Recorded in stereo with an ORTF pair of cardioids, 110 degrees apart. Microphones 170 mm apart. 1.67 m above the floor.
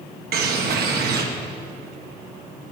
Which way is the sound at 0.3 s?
65° right.